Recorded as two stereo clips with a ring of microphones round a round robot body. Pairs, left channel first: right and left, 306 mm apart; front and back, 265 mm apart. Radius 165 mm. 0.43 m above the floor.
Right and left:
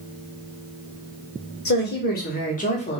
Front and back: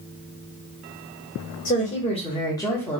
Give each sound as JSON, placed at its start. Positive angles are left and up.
{"t": 1.6, "sound": "a woman speaking", "azimuth_deg": -50, "distance_m": 1.6}